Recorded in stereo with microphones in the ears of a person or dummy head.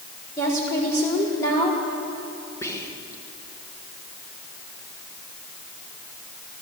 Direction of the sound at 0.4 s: 15° left (ahead or behind).